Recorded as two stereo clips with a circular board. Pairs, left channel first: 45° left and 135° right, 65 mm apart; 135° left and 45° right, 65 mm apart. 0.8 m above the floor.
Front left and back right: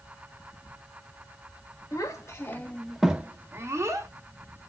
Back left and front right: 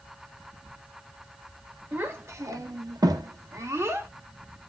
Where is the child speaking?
10° left, 0.9 m; by 4.1 s 95° right, 1.0 m.